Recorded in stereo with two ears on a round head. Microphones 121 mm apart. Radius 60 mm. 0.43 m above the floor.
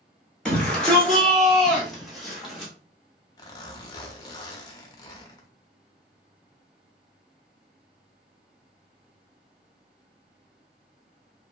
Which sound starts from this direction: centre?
A shout, at 0.5 s.